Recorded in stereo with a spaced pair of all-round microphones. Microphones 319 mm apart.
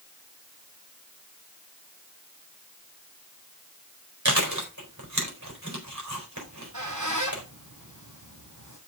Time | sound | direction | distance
4.2 | chewing | 60° right (ahead or behind) | 4 m
6.4 | a squeak | 65° right (ahead or behind) | 4.5 m